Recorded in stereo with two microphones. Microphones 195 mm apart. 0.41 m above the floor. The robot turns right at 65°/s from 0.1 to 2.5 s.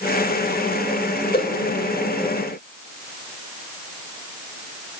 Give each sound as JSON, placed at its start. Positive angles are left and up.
{"t": 1.3, "sound": "a whoosh", "side_deg": 50, "distance_m": 1.2}